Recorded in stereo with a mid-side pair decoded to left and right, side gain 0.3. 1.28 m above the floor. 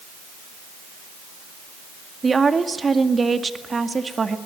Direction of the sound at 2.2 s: 45° right.